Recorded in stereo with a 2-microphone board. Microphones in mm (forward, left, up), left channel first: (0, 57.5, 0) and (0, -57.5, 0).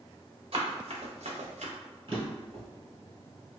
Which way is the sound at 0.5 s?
60° right (ahead or behind).